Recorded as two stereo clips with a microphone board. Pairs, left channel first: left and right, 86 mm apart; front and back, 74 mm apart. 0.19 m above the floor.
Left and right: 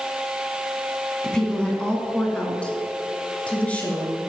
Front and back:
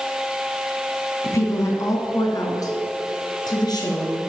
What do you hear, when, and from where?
1.2 s a woman speaking: 15° left, 1.6 m